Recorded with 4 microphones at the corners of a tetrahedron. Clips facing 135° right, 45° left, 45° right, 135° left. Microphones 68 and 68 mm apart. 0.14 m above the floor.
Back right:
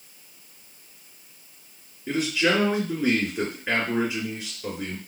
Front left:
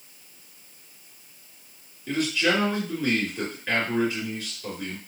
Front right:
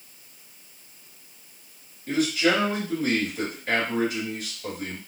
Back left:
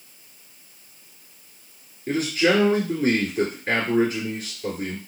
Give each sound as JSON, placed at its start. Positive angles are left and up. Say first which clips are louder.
{"t": 2.1, "sound": "a man speaking", "louder": "back right 1 dB, back left 2 dB", "azimuth_deg": 155, "distance_m": 2.5}